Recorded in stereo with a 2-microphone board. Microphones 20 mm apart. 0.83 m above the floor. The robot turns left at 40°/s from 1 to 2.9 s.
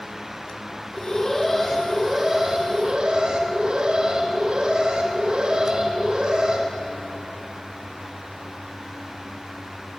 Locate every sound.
0.9 s an alarm: 30° left, 3.5 m; by 6.7 s 45° right, 3.5 m